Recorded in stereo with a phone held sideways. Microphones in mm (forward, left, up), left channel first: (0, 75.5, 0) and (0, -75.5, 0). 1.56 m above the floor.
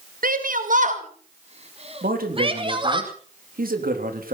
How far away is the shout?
About 1.9 m.